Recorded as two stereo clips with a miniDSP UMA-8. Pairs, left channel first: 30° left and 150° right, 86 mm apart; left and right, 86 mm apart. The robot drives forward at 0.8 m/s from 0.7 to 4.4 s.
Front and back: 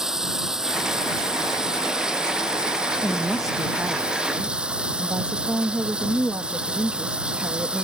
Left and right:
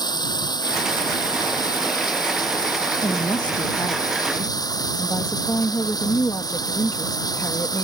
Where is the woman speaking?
105° left; by 7.9 s 140° left.